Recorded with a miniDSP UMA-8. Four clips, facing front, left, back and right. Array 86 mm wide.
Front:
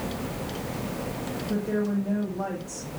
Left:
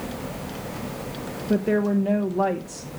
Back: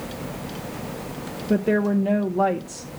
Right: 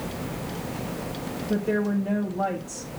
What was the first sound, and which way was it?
A woman speaking, 150° left.